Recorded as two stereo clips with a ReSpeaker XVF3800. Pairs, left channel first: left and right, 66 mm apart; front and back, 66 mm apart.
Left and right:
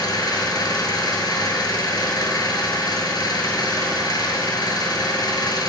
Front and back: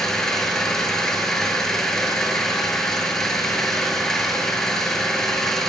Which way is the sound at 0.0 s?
85° left.